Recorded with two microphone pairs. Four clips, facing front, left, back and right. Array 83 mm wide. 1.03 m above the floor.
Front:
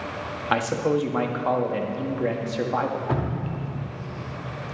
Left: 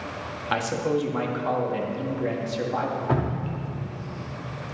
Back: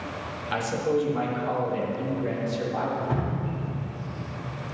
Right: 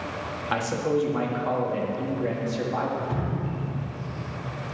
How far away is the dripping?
About 1.1 m.